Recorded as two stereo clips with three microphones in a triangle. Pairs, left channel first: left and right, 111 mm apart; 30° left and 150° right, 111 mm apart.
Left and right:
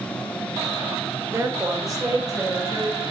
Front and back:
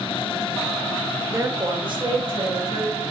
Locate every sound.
1.3 s a woman speaking: 120° right, 1.1 m; by 3.0 s 145° right, 2.5 m